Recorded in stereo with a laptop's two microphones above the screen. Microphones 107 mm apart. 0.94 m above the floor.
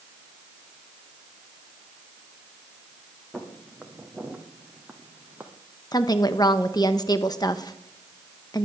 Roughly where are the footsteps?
Centre.